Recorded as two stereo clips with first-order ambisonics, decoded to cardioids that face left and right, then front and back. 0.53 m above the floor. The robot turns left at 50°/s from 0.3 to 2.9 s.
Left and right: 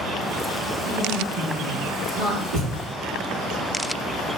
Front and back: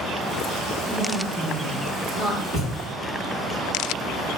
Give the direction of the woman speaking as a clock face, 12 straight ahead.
2 o'clock.